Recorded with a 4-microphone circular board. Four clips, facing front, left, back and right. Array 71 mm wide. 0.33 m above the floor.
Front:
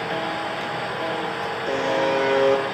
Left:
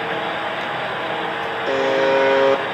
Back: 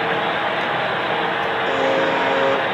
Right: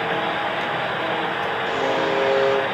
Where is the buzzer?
100° left, 4.5 m.